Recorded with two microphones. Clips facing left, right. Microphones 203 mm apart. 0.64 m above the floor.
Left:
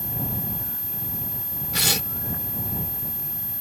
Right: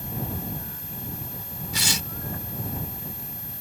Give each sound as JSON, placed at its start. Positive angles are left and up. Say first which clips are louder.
{"t": 1.7, "sound": "tearing paper", "louder": "left 3 dB", "side_deg": 60}